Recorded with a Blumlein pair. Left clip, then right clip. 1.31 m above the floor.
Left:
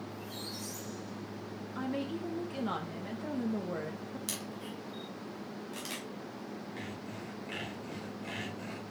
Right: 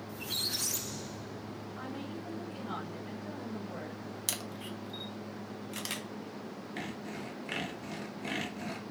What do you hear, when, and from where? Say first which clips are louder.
0.1 s a squeak: right 12 dB; 35° right, 0.5 m
1.8 s a woman speaking: left 7 dB; 35° left, 1.2 m
4.3 s a camera shutter: right 5 dB; 20° right, 1.5 m
6.8 s sawing: right 2 dB; 25° right, 1.8 m